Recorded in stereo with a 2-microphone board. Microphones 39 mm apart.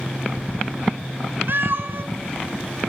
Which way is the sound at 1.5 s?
60° right (ahead or behind).